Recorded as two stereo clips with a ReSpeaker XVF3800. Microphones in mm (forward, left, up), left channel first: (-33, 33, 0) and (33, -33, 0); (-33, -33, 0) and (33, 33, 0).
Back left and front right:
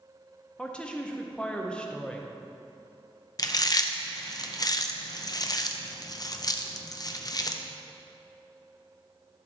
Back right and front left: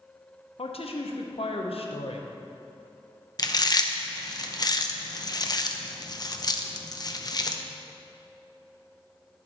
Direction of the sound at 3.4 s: Straight behind.